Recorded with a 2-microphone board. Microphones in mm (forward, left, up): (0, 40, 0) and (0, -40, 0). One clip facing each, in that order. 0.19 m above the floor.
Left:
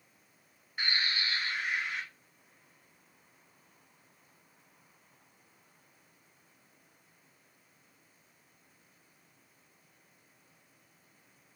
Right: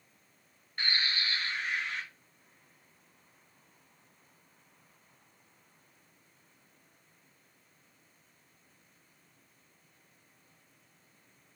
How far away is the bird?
About 1.0 m.